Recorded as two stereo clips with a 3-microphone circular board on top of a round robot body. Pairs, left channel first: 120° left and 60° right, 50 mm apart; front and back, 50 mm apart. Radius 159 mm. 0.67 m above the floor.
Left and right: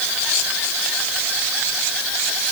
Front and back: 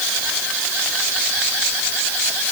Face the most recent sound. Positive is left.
No sound to turn to.